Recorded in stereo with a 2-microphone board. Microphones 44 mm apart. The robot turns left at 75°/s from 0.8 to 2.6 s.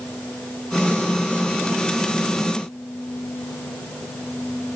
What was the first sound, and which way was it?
Only background noise.